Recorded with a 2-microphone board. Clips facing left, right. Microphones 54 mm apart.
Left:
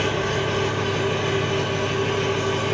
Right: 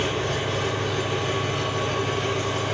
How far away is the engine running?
About 8 m.